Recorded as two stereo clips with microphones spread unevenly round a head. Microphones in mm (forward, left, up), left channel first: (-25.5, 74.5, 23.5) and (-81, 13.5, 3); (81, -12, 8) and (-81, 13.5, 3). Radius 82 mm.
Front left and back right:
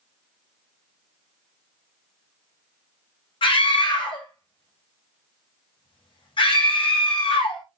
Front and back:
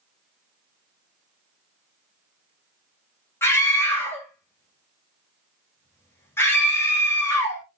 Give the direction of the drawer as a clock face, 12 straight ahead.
I don't hear a drawer.